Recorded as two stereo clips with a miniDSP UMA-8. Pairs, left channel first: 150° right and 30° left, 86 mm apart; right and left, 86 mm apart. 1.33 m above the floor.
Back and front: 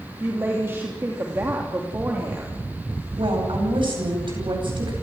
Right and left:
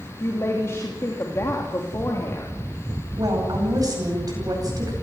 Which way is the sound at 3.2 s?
50° left.